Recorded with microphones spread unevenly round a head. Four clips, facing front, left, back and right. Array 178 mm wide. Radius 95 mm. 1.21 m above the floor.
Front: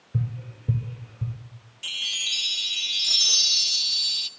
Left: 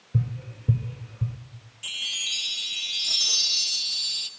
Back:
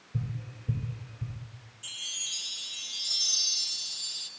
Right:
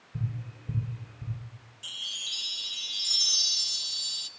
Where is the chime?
45° left, 0.5 m.